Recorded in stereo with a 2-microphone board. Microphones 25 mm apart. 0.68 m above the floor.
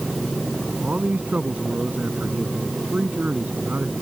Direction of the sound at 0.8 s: 85° right.